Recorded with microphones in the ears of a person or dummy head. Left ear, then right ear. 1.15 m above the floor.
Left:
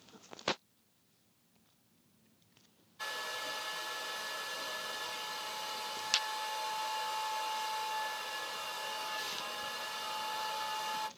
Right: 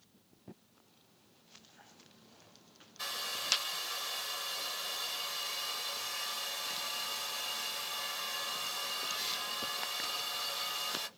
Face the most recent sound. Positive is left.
turn(degrees=-25)  # may be behind; listen again after turning